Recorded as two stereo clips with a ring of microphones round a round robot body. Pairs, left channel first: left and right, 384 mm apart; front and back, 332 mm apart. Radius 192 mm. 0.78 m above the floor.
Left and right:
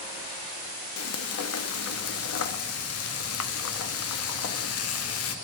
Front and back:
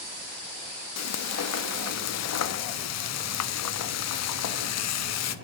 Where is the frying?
40° left, 0.7 m.